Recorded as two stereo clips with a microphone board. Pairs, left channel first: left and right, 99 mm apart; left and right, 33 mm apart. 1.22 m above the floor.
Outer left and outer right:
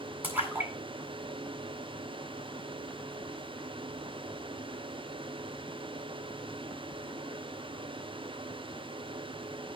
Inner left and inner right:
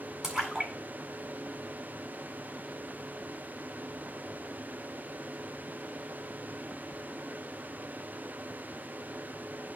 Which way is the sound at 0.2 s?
20° right (ahead or behind).